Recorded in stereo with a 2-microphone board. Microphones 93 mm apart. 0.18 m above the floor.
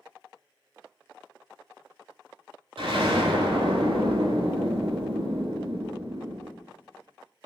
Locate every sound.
2.8 s an explosion: 75° right (ahead or behind), 0.7 m